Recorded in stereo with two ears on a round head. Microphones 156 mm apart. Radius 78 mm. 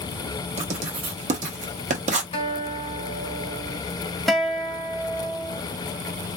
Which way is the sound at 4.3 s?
Centre (ahead or behind).